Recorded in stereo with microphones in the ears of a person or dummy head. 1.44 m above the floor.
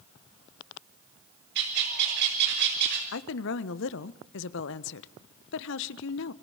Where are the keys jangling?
No keys jangling in this recording.